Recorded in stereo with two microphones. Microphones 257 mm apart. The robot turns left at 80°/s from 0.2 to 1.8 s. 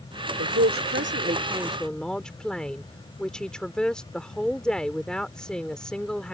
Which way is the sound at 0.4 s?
70° right.